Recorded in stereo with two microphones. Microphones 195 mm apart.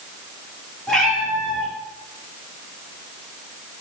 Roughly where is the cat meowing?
Centre.